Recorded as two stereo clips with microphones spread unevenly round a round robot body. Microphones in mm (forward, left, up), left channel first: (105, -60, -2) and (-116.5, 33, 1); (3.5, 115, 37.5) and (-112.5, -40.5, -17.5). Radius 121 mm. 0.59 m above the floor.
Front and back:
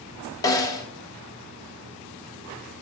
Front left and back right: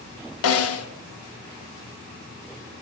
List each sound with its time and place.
0.4 s a snare drum: 50° left, 0.9 m